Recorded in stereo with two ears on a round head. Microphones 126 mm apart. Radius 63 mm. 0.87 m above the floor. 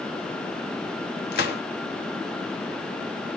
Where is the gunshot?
70° left (ahead or behind), 1.0 m.